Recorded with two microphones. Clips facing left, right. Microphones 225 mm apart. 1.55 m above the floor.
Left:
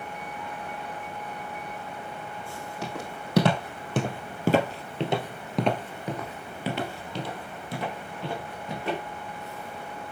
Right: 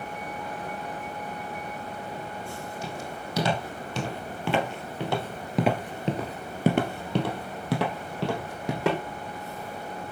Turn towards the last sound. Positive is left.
turn(degrees=-70)  # may be behind; listen again after turning